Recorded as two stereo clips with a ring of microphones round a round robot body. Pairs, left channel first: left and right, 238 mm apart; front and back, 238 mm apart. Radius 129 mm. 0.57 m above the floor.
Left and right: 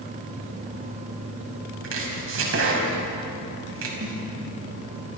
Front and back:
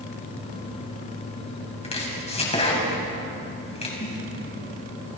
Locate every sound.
1.8 s chopping: 65° right, 5 m
4.0 s a snare drum: 50° right, 9.5 m